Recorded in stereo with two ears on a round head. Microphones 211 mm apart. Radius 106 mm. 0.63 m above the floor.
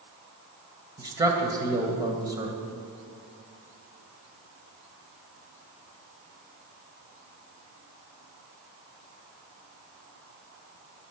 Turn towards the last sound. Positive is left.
turn(degrees=-15)  # may be behind; listen again after turning